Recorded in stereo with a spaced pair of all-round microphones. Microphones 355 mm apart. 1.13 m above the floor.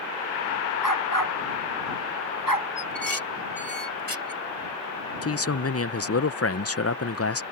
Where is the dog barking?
70° left (ahead or behind); by 2.7 s 80° left.